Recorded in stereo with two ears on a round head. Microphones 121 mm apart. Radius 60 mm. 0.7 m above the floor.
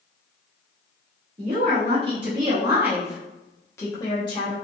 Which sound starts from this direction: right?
A woman speaking, at 1.4 s.